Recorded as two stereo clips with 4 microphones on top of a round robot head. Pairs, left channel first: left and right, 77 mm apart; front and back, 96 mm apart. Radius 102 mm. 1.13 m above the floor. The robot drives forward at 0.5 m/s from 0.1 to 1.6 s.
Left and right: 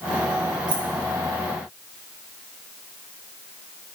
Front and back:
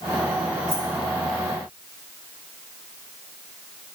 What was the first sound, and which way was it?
Keys jangling, 120° right.